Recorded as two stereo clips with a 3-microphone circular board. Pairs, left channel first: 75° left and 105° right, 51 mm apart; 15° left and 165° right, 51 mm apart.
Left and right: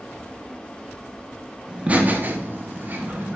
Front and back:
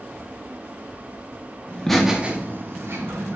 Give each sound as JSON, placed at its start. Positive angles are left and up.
{"t": 1.7, "sound": "laughter", "azimuth_deg": -40, "distance_m": 0.9}